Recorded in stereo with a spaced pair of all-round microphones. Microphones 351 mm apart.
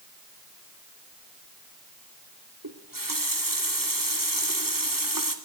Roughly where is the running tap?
Right.